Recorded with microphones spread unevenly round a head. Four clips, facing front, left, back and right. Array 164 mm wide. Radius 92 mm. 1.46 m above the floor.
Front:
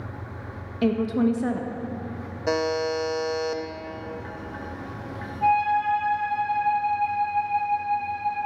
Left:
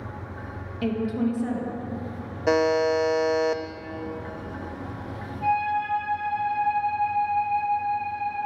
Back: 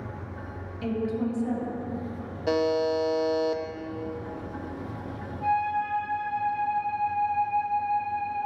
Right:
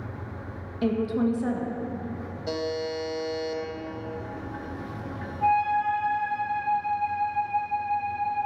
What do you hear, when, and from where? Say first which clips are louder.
0.8 s a woman speaking: right 1 dB, front 6 dB; 10° right, 1.8 m
2.5 s a buzzer: left 9 dB, even; 85° left, 0.8 m
5.4 s a flute: right 2 dB, front 5 dB; 30° right, 5 m